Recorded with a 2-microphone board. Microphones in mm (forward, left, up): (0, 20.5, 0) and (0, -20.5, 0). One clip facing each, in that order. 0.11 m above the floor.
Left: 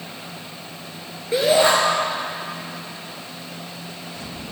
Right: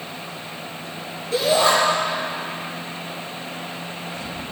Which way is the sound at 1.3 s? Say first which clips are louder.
Left 2 dB; 25° left (ahead or behind).